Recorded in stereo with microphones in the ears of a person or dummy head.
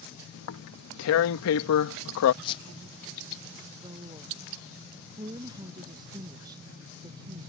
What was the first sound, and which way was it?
Tearing paper, 75° left (ahead or behind).